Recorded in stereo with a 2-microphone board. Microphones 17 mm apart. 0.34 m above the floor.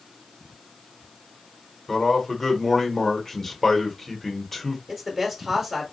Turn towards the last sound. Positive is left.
turn(degrees=-25)  # may be behind; listen again after turning